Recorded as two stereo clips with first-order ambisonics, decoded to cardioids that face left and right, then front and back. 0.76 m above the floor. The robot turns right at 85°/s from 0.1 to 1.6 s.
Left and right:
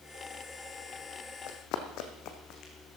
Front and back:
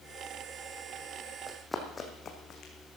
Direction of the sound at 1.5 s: 80° left.